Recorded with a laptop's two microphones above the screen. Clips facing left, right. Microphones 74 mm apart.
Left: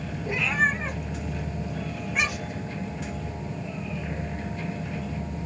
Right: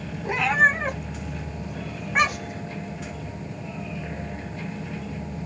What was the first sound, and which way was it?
A cat meowing, 80° right.